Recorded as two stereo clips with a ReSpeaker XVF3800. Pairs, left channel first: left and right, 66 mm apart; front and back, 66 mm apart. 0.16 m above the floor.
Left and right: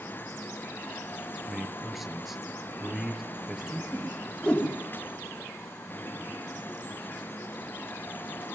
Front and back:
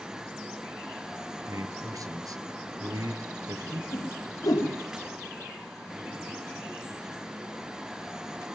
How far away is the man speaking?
About 2.5 m.